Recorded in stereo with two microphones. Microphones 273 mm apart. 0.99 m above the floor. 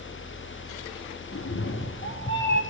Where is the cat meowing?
60° left (ahead or behind), 0.8 m; by 2.6 s 35° left (ahead or behind), 1.3 m.